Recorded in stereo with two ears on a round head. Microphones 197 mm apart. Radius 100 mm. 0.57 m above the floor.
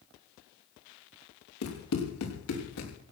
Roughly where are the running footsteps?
Left.